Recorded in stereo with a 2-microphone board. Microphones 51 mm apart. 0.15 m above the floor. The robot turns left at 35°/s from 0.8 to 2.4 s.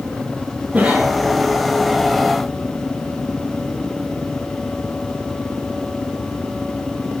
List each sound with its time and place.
0.7 s a cough: 25° right (ahead or behind), 4 m; by 1.2 s 15° right (ahead or behind), 4 m